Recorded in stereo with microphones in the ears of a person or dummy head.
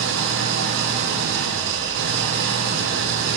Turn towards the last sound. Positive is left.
turn(degrees=-70)  # may be behind; listen again after turning